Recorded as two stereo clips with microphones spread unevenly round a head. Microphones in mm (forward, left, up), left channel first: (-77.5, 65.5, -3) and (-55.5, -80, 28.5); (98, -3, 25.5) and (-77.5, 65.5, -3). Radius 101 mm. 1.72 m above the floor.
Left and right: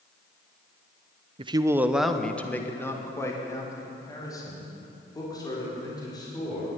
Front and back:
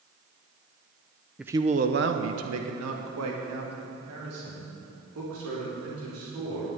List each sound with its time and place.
1.4 s a man speaking: 105° right, 0.7 m; by 6.7 s 165° left, 6 m